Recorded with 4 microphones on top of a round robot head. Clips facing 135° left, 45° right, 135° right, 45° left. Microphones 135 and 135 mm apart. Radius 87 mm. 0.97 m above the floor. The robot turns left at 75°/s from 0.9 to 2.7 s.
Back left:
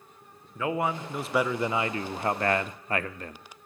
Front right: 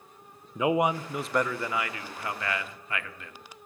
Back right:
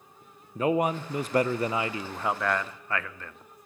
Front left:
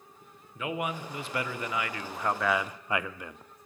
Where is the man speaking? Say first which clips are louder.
Front right 4 dB, back right 8 dB; 110° right, 0.5 m; by 3.4 s 115° left, 0.5 m.